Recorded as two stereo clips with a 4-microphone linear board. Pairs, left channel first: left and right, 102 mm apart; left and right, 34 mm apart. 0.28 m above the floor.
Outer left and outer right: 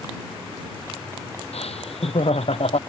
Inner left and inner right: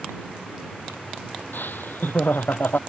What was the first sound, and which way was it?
Laughter, 85° left.